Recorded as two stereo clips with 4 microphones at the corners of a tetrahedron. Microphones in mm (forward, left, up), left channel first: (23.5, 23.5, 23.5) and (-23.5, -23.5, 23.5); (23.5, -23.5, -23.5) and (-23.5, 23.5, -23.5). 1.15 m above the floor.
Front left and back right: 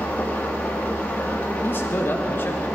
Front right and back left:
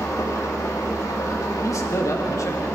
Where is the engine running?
20° right, 1.9 m.